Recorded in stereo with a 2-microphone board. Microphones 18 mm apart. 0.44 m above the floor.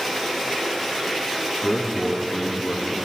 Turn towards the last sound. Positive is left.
turn(degrees=-20)  # may be behind; listen again after turning